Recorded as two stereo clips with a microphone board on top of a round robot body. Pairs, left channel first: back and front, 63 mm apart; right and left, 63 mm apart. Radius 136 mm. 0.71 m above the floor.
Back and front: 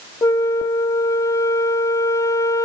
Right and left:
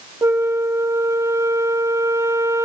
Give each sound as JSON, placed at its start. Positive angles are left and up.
{"t": 0.2, "sound": "a flute", "azimuth_deg": 140, "distance_m": 0.8}